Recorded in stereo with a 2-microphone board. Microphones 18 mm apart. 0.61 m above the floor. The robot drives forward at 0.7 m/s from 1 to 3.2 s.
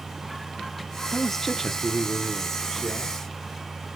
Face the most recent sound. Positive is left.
turn(degrees=10)  # may be behind; listen again after turning